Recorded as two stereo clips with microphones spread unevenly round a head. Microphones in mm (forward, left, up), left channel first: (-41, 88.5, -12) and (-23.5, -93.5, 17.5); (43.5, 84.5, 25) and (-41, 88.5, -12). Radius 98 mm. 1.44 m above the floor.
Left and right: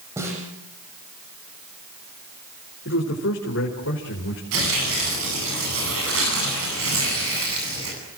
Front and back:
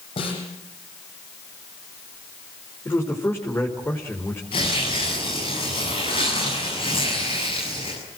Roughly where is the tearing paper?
Ahead right.